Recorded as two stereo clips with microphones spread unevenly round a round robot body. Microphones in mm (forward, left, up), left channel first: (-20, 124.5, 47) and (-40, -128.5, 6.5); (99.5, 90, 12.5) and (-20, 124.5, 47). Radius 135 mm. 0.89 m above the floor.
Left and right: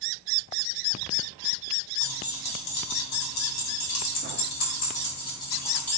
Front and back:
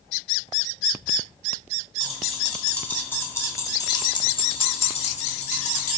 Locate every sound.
2.0 s keys jangling: 75° left, 3 m; by 6.0 s 5° right, 2 m